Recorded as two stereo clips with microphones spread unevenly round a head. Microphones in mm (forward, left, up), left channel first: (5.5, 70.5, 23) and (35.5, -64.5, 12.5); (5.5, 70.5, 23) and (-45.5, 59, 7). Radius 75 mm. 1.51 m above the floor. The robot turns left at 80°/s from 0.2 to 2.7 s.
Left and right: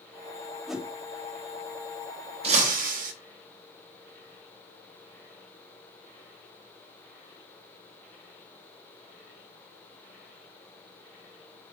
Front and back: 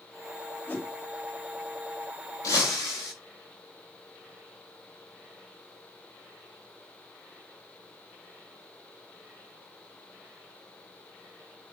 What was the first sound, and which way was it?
A whoosh, 20° left.